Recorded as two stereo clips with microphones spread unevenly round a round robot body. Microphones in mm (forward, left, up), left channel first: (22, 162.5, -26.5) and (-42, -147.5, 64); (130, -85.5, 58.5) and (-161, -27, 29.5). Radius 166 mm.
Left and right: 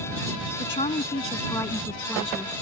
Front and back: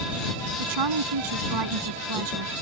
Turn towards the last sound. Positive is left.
turn(degrees=170)